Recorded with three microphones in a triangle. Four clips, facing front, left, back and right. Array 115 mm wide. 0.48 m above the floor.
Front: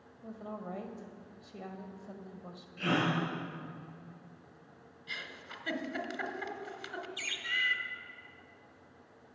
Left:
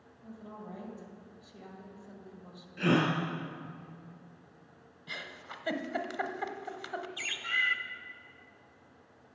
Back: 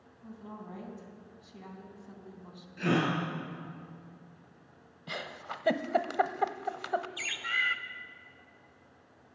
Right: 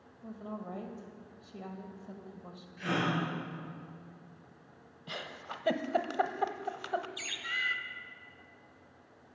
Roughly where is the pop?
No pop in this recording.